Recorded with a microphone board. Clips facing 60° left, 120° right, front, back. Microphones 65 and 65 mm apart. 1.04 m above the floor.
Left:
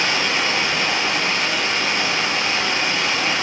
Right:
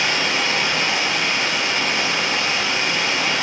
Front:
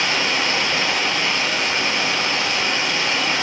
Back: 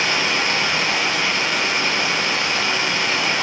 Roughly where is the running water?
Behind left.